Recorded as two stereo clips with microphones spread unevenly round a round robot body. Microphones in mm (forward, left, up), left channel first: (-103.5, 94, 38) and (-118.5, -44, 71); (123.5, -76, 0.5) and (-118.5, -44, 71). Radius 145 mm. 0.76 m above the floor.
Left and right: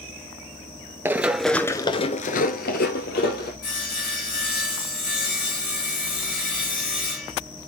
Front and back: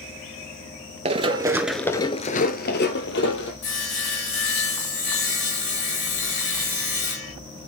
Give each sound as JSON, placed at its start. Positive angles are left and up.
{"t": 1.1, "sound": "running footsteps", "azimuth_deg": -150, "distance_m": 1.0}
{"t": 3.6, "sound": "sawing", "azimuth_deg": 45, "distance_m": 7.0}